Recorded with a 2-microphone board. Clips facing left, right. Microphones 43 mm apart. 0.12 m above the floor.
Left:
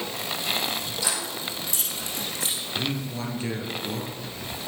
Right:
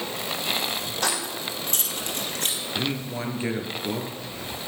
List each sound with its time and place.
1.0 s keys jangling: 55° right (ahead or behind), 3.5 m
2.8 s a man speaking: 25° right (ahead or behind), 2 m